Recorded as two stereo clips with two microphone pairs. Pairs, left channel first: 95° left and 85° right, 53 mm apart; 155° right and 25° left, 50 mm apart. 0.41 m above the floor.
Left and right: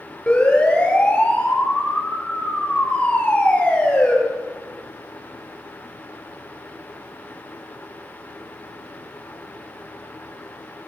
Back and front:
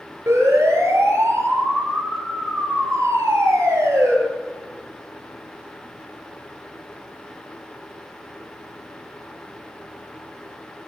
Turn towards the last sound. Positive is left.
turn(degrees=25)